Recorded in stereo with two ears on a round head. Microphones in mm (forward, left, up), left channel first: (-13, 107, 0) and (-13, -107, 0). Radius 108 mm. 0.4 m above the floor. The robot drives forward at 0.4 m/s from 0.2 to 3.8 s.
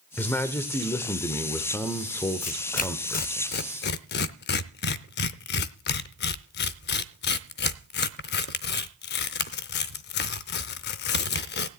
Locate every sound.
0.2 s a man speaking: 10° left (ahead or behind), 1.0 m
2.4 s tearing paper: 30° left (ahead or behind), 0.8 m; by 11.7 s 45° left (ahead or behind), 0.6 m